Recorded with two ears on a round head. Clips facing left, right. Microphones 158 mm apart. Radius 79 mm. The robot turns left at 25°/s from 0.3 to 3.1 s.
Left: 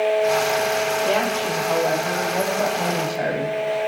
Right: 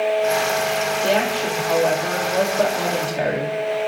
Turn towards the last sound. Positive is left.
turn(degrees=-95)